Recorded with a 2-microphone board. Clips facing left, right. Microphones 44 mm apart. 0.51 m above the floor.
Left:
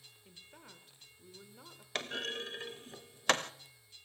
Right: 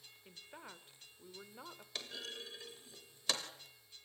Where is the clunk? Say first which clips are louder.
Left 9 dB; 50° left (ahead or behind), 0.7 m.